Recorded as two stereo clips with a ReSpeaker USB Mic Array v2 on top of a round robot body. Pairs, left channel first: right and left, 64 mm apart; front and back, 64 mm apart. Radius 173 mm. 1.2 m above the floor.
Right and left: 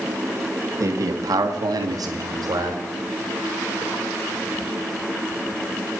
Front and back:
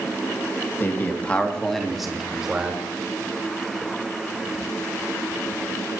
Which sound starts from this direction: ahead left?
A man speaking, at 0.8 s.